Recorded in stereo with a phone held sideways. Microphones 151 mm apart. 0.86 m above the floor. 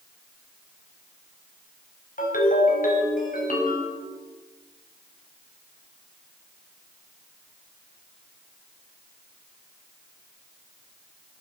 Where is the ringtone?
65° left (ahead or behind), 4 m.